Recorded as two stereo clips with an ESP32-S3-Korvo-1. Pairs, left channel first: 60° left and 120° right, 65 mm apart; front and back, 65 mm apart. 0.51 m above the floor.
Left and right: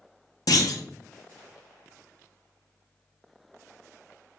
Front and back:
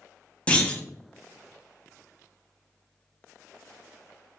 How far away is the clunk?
About 0.6 m.